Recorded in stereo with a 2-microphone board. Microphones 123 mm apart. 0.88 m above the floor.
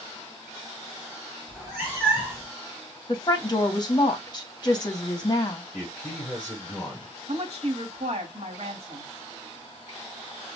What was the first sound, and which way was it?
A cat meowing, 5° right (ahead or behind).